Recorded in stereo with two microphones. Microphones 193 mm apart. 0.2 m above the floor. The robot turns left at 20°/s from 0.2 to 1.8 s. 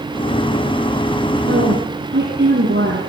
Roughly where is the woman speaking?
Right.